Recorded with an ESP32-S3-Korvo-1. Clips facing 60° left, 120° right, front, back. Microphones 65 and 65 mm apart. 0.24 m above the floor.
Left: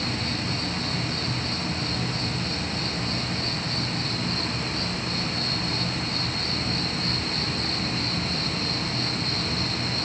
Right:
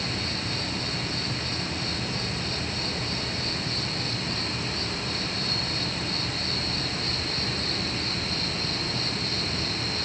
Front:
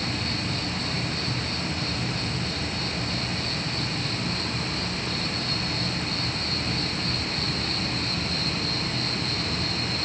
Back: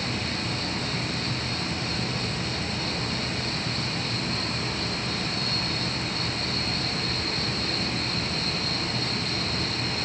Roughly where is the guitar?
No guitar in this recording.